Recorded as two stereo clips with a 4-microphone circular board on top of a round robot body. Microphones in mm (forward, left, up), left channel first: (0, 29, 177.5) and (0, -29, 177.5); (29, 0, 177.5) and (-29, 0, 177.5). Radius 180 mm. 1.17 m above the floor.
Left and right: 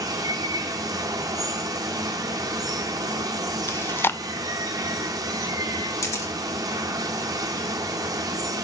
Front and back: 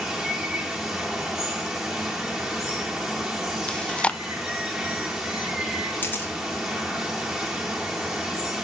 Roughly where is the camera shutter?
Ahead left.